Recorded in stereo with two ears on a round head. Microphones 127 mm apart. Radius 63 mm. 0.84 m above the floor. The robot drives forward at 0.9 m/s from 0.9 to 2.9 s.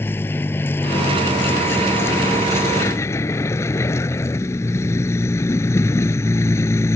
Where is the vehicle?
15° left (ahead or behind); by 7.0 s 20° left (ahead or behind).